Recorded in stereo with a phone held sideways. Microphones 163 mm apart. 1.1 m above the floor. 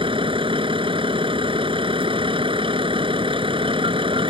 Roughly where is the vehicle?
Right.